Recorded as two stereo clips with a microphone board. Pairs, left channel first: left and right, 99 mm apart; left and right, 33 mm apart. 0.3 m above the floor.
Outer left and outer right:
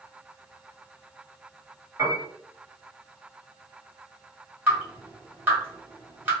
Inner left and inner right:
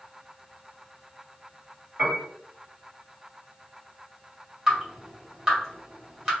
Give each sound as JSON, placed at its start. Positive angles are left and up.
{"t": 2.0, "sound": "a piano", "side_deg": -30, "distance_m": 1.6}
{"t": 4.7, "sound": "dripping", "side_deg": -15, "distance_m": 2.0}